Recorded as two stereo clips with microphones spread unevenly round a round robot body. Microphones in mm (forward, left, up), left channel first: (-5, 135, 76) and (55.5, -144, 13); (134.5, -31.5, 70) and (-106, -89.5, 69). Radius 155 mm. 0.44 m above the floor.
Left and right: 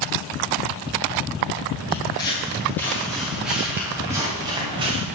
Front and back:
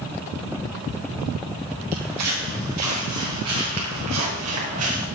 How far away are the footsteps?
About 6.5 m.